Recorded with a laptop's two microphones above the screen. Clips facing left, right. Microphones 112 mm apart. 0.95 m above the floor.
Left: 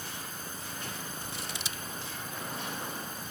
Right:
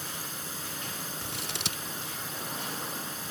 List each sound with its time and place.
0.0 s a drone: 85° right
1.2 s scissors: 65° right (ahead or behind)